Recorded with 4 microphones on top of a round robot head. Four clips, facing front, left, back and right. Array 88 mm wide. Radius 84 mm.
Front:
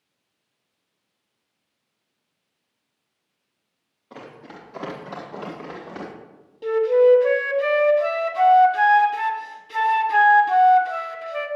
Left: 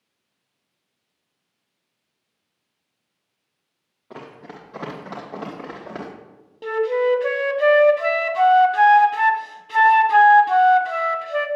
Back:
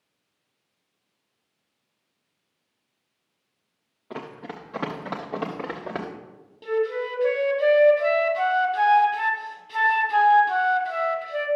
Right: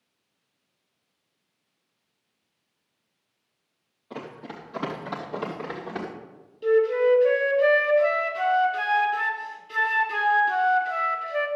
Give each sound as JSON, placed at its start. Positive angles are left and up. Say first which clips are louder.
{"t": 4.1, "sound": "running footsteps", "louder": "right 1 dB, back 4 dB", "azimuth_deg": 155, "distance_m": 4.5}
{"t": 6.6, "sound": "a flute", "louder": "even, front 10 dB", "azimuth_deg": 80, "distance_m": 0.9}